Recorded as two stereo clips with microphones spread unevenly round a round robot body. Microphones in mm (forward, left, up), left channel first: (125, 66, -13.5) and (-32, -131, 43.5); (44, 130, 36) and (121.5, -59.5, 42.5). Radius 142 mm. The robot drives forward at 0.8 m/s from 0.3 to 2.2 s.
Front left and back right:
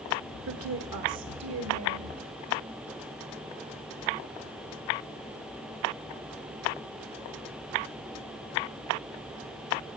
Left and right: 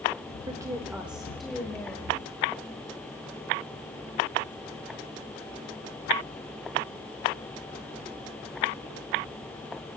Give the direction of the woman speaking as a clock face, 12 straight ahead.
4 o'clock.